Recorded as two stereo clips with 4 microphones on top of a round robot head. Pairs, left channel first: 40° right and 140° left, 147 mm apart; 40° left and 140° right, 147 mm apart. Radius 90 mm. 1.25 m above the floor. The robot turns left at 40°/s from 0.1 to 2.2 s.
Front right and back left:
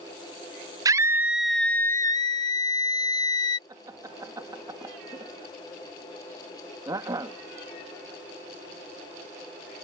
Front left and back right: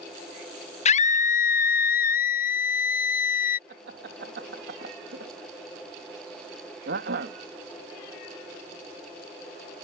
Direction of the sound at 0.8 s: 80° left.